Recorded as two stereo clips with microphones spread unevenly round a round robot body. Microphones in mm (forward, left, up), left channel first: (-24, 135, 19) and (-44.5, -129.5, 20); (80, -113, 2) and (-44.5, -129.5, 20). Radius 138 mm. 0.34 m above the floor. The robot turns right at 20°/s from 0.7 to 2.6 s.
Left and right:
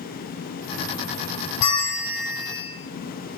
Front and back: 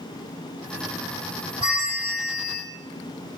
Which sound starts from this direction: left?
A bell, at 1.6 s.